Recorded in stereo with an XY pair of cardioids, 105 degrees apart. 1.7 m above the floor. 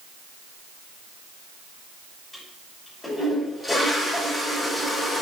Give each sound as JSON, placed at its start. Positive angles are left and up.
{"t": 2.3, "sound": "a toilet flushing", "azimuth_deg": 20, "distance_m": 6.0}